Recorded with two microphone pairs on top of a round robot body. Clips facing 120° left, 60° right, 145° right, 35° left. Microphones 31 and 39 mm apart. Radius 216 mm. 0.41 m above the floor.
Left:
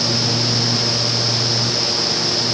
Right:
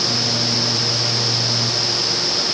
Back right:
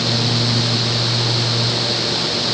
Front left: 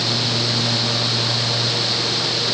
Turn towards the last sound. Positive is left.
No sound to turn to.